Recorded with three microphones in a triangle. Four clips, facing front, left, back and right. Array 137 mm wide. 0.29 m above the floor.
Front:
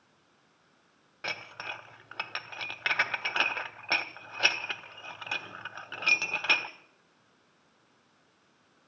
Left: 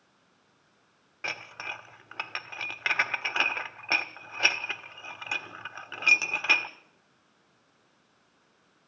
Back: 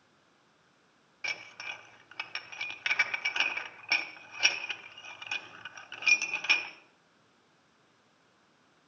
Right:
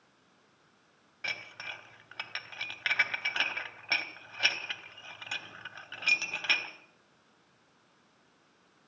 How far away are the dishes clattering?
About 1.1 m.